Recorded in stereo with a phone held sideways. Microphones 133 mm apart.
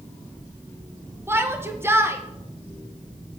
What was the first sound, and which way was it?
A shout, 20° right (ahead or behind).